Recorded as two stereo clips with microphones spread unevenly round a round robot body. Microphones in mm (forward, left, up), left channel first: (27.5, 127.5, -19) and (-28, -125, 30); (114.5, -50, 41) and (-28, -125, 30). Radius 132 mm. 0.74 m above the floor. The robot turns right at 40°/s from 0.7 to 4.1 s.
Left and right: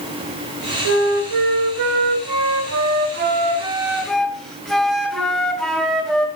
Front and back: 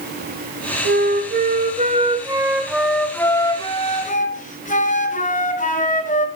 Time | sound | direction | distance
0.8 | a flute | 140° right | 1.5 m